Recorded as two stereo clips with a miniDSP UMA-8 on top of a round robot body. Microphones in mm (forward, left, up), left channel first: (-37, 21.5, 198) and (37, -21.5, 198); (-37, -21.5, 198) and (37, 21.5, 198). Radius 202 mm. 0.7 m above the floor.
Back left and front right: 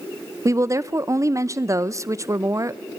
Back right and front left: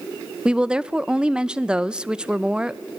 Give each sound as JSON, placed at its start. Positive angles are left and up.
{"t": 0.5, "sound": "a woman speaking", "azimuth_deg": -45, "distance_m": 0.7}